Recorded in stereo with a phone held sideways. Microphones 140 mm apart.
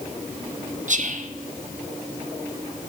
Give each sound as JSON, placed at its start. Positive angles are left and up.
{"t": 0.9, "sound": "whispering", "side_deg": -60, "distance_m": 0.7}